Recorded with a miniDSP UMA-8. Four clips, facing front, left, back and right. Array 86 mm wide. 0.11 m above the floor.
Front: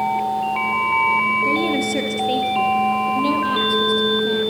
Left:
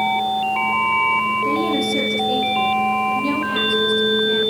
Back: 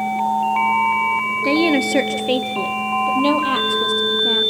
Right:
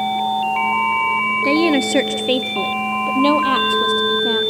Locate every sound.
1.4 s a woman speaking: 135° right, 1.7 m; by 4.4 s 115° right, 4 m